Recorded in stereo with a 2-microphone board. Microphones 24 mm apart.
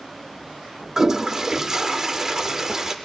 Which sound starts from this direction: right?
A toilet flushing, at 1.0 s.